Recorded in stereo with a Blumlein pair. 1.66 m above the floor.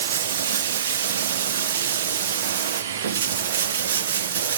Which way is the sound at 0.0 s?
60° right.